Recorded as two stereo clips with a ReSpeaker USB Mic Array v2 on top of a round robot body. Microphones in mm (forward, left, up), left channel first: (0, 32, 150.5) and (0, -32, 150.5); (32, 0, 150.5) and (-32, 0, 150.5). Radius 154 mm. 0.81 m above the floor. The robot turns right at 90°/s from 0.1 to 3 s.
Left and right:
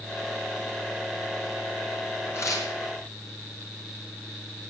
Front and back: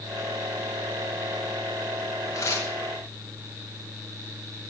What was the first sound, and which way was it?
Tearing paper, 35° left.